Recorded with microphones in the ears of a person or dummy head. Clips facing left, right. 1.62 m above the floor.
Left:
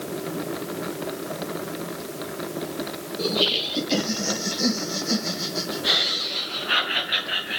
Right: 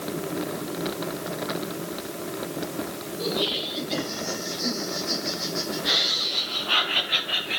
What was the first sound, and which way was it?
Laughter, 75° left (ahead or behind).